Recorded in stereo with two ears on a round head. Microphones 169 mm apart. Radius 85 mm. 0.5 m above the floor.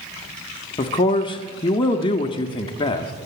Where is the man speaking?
25° left (ahead or behind), 0.7 m.